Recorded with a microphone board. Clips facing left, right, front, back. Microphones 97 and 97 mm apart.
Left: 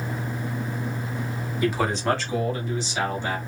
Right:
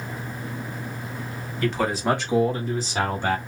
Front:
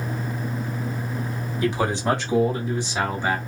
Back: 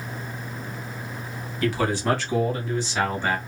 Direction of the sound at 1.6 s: 35° left.